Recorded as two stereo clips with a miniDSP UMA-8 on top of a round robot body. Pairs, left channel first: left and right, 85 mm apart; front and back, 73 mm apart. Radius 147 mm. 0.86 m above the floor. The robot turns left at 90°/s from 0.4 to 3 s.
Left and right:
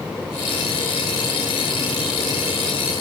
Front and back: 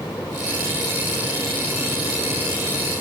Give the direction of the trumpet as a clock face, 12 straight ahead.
No trumpet in this recording.